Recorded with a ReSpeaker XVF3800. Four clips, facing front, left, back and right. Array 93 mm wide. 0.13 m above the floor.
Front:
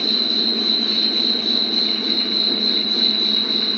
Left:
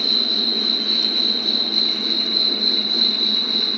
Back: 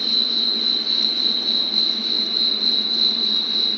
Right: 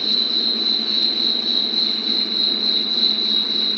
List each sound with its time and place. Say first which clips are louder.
0.0 s an insect: left 1 dB, front 5 dB; 75° left, 1.0 m